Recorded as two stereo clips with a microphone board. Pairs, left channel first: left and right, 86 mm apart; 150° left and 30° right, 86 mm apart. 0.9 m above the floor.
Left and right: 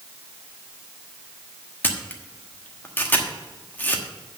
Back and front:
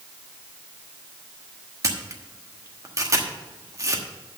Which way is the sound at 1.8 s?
20° left.